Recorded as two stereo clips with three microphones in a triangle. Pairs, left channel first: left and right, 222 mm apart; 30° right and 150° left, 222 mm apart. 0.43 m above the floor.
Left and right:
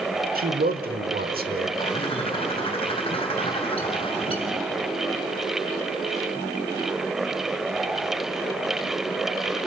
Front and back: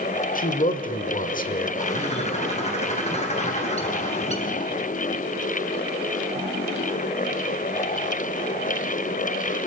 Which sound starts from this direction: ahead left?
A bird, at 1.8 s.